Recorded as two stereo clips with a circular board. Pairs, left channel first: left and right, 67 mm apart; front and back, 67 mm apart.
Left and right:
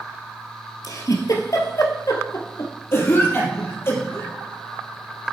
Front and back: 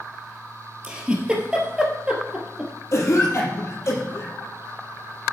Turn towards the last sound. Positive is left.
turn(degrees=45)